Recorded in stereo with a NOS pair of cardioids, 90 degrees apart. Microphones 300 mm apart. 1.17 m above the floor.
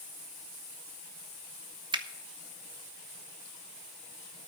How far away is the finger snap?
About 1.1 m.